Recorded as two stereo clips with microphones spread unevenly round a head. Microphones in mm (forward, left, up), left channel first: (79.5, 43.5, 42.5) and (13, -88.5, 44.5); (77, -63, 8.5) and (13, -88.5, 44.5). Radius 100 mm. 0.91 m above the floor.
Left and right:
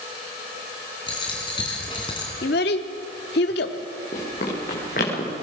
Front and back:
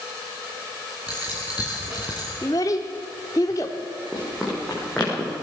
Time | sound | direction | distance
1.1 | a dropped coin | 130° left | 2.5 m
2.4 | a child speaking | 90° left | 1.1 m
4.1 | running footsteps | 115° left | 6 m